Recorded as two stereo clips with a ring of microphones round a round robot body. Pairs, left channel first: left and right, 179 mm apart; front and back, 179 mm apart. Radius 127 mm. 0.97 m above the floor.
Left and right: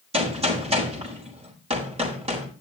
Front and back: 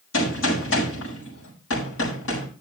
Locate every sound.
0.1 s a gunshot: 30° right, 5.5 m